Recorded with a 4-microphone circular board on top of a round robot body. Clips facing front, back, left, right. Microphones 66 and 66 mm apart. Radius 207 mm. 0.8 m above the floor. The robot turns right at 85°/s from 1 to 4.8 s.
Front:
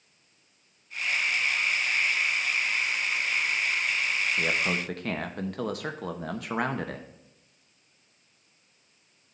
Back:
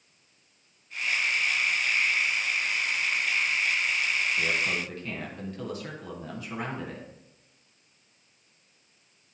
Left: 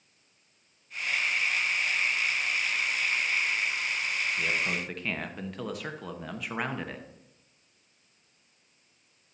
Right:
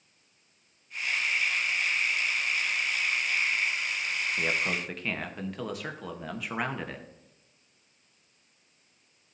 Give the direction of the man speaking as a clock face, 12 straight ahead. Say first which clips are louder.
Front 1 dB, right 3 dB; 1 o'clock.